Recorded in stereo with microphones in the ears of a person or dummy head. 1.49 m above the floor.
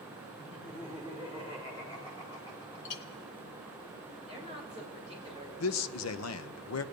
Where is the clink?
40° left (ahead or behind), 1.9 m.